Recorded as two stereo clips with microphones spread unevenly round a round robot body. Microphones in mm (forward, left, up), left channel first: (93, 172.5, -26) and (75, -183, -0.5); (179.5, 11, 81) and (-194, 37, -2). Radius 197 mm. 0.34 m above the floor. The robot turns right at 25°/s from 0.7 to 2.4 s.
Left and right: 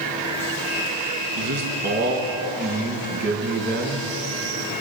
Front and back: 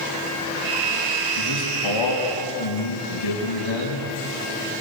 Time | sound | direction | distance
1.4 | a man speaking | 55° right | 4 m